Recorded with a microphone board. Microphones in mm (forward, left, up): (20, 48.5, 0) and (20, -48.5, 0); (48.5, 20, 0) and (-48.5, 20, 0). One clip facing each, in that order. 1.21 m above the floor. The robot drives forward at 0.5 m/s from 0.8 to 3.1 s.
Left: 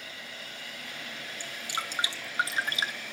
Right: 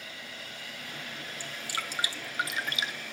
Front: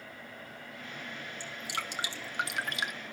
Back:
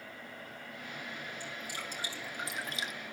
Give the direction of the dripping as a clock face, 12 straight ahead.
11 o'clock.